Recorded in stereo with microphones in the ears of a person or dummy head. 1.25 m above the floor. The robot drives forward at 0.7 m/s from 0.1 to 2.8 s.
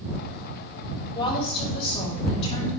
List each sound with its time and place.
1.1 s a woman speaking: 30° left (ahead or behind), 6.5 m; by 2.7 s 35° left (ahead or behind), 6 m